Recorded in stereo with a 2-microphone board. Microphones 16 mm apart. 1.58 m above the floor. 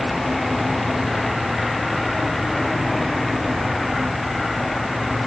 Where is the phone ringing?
No phone ringing in this recording.